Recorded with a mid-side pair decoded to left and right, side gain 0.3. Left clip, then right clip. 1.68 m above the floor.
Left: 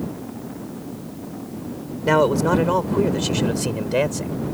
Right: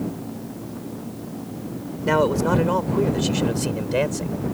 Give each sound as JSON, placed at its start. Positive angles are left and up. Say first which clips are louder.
{"t": 2.1, "sound": "a man speaking", "louder": "left 2 dB", "azimuth_deg": 30}